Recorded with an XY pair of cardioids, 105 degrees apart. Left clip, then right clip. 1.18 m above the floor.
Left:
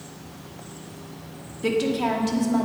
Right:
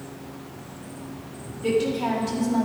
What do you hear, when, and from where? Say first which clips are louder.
1.6 s a woman speaking: even; 50° left, 2.5 m; by 2.6 s 30° left, 2.5 m